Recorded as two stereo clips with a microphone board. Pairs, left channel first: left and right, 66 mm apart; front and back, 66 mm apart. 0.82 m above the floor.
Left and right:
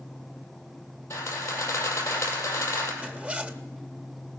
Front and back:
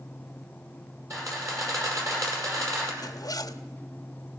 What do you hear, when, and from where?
1.1 s a camera shutter: 140° left, 5 m
3.0 s a zipper: 20° right, 0.9 m